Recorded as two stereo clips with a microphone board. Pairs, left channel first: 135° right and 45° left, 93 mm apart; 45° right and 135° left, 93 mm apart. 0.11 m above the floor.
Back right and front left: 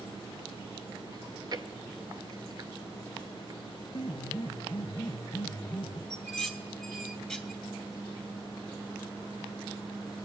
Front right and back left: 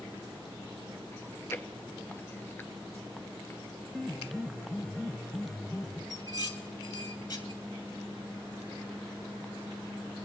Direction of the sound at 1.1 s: 15° left.